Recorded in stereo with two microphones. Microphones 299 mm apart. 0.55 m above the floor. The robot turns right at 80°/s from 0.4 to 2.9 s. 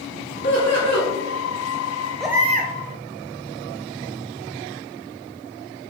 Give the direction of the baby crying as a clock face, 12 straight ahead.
6 o'clock.